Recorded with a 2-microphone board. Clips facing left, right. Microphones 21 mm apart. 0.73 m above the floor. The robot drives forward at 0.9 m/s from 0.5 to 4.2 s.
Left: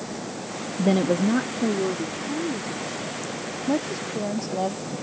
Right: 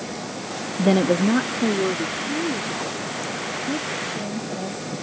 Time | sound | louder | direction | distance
0.8 | a woman speaking | right 3 dB | 15° right (ahead or behind) | ?
3.7 | a woman speaking | left 4 dB | 65° left (ahead or behind) | ?